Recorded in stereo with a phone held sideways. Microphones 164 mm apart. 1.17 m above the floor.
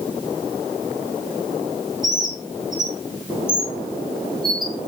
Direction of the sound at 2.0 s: 25° right (ahead or behind).